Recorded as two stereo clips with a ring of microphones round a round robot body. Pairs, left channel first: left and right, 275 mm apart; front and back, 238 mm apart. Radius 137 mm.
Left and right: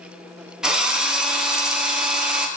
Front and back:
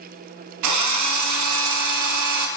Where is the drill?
175° right, 5.5 m.